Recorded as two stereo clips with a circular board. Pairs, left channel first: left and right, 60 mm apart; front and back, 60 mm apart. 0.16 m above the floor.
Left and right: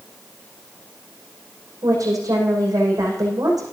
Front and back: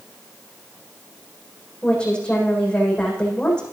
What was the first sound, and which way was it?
A woman speaking, 75° right.